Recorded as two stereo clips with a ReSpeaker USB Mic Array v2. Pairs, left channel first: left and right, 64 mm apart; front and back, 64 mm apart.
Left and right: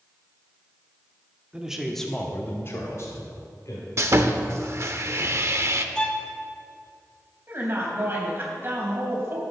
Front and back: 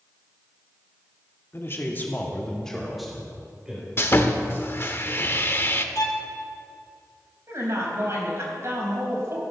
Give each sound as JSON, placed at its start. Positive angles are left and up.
{"t": 1.5, "sound": "a man speaking", "azimuth_deg": -20, "distance_m": 1.6}
{"t": 4.0, "sound": "sawing", "azimuth_deg": -50, "distance_m": 0.7}
{"t": 6.0, "sound": "a violin", "azimuth_deg": 15, "distance_m": 1.1}
{"t": 7.5, "sound": "a woman speaking", "azimuth_deg": -140, "distance_m": 3.5}